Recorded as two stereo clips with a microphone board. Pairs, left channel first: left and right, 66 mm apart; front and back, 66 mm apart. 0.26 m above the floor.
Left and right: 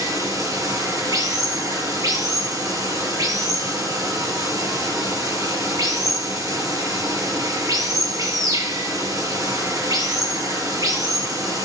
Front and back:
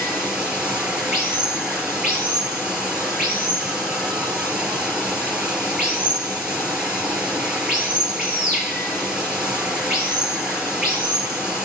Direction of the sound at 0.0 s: 105° right.